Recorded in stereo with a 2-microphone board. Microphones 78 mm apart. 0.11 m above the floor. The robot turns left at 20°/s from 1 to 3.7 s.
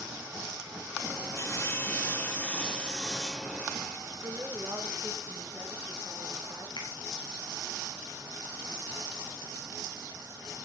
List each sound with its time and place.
1.4 s sawing: 40° left, 1.3 m; by 4.0 s 5° right, 1.3 m
4.2 s a woman speaking: 45° right (ahead or behind), 6 m
6.8 s a finger snap: 80° left, 5 m